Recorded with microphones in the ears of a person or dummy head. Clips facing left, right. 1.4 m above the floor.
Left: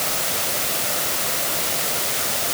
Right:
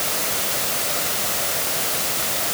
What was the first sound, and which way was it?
Only background noise.